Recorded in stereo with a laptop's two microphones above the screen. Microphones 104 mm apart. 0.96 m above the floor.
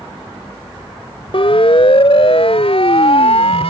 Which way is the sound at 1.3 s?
60° left (ahead or behind).